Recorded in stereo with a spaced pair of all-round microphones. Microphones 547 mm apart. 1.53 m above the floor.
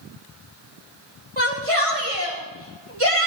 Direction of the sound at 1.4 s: 70° right (ahead or behind).